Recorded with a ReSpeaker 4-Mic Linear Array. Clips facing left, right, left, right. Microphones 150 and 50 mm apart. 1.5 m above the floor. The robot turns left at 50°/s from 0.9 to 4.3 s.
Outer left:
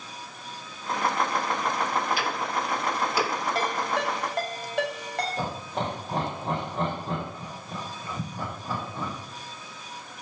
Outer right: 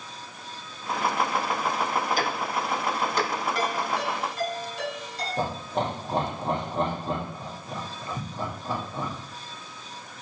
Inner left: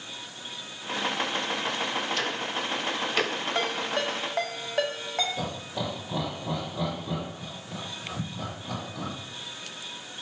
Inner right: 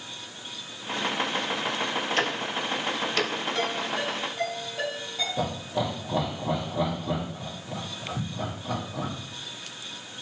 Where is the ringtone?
35° left (ahead or behind), 4 m; by 5.3 s 70° left (ahead or behind), 4 m.